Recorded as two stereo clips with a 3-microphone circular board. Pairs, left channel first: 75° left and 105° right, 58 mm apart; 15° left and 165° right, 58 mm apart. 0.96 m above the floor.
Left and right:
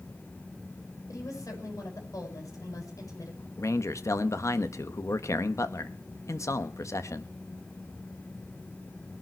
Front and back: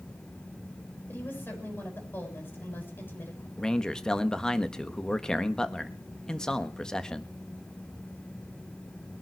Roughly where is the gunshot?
I don't hear a gunshot.